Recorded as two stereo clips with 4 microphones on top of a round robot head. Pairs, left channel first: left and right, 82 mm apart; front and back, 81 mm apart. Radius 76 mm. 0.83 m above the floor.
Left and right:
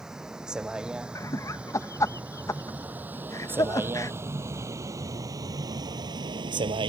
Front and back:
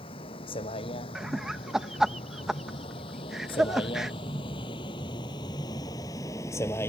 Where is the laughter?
100° left.